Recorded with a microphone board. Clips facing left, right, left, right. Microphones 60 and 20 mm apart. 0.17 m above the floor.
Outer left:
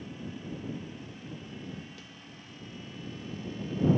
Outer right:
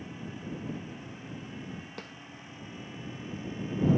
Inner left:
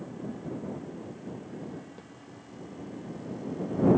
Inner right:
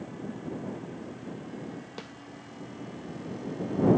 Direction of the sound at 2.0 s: 60° right (ahead or behind).